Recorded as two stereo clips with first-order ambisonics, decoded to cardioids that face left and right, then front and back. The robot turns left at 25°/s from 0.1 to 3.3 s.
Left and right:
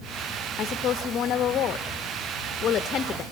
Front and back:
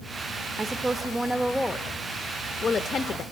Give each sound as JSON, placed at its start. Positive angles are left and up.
{"t": 0.6, "sound": "a woman speaking", "azimuth_deg": 110, "distance_m": 0.5}